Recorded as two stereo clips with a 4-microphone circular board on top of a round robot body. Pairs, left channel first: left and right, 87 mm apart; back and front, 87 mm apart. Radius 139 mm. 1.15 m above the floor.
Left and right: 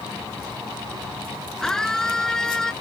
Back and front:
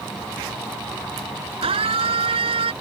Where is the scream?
5° left.